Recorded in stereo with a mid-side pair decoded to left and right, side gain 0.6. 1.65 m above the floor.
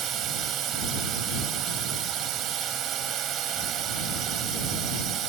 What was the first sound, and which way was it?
A drone, 60° right.